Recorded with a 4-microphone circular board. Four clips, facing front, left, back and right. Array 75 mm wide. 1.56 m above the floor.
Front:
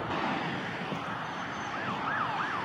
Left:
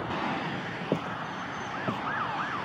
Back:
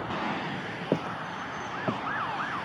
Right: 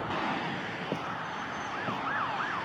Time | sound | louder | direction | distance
0.9 | footsteps | left 5 dB, back 4 dB | 160° left | ?